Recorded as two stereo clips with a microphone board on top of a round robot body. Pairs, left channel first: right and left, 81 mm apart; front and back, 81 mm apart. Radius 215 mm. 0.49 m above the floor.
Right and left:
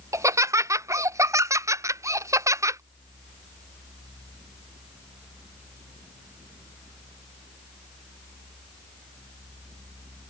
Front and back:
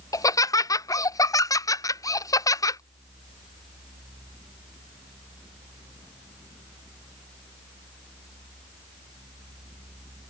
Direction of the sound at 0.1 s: 40° left.